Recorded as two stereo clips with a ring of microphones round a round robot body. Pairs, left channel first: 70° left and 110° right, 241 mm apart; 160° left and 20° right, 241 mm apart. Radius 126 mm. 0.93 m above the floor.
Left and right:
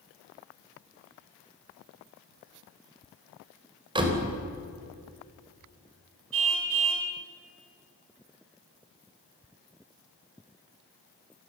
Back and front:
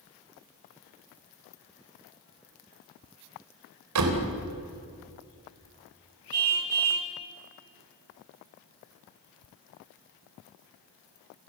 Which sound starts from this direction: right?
A car horn, at 6.3 s.